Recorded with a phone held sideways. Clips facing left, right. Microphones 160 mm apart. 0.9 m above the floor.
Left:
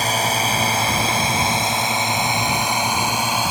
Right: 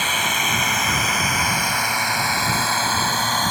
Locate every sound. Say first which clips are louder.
0.0 s a drone: left 4 dB; 40° left (ahead or behind); by 3.5 s 10° left (ahead or behind)